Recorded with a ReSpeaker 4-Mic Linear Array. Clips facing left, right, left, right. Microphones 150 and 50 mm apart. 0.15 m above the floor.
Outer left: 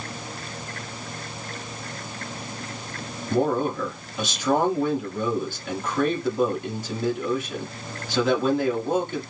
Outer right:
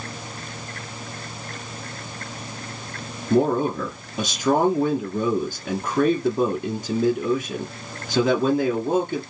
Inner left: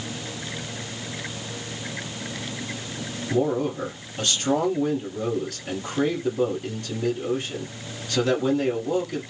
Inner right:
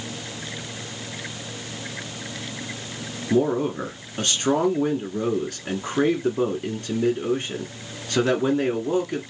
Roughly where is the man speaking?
Right.